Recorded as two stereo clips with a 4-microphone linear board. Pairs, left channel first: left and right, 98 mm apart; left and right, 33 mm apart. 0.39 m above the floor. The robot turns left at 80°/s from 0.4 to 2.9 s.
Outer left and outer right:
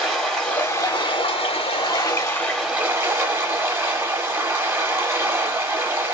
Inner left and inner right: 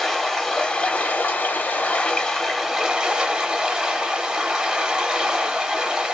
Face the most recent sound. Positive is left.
turn(degrees=-25)